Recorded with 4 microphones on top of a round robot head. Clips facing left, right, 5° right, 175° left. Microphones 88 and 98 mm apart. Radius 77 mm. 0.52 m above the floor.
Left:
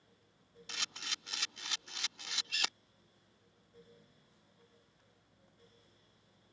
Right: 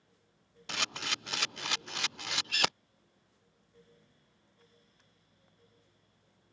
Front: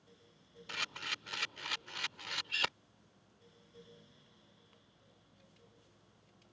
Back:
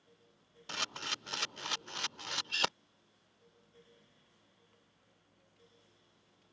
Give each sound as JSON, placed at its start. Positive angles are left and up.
{"t": 0.7, "sound": "a camera shutter", "azimuth_deg": -120}